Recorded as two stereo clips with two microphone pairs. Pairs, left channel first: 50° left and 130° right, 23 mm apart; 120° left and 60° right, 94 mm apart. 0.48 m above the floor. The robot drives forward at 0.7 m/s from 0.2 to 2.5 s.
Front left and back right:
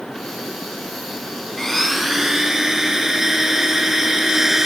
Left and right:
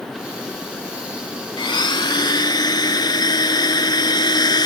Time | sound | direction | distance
1.6 | a blender | 125° left | ?